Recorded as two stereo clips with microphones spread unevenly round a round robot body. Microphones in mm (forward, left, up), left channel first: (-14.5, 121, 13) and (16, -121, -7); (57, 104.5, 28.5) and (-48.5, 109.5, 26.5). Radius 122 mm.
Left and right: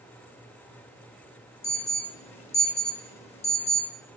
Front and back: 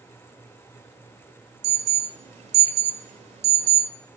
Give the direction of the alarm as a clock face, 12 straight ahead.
6 o'clock.